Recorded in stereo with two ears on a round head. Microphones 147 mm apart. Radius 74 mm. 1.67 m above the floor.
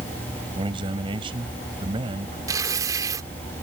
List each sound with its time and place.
0.6 s a man speaking: 30° right (ahead or behind)
2.5 s tearing paper: 20° right (ahead or behind)